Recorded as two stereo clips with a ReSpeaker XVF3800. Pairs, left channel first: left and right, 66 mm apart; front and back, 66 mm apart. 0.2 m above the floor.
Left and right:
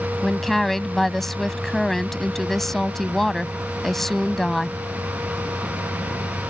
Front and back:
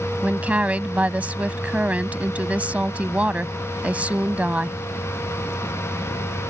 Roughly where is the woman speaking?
Behind.